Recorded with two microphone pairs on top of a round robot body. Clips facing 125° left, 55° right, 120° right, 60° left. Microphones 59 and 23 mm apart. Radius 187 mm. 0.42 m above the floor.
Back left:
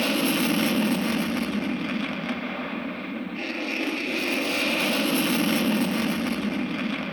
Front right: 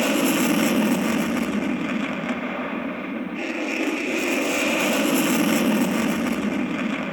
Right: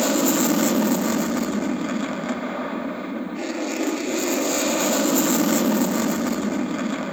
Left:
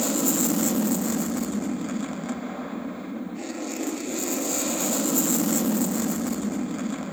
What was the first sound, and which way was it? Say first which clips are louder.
An aircraft: front right 3 dB, right 5 dB; 120° right.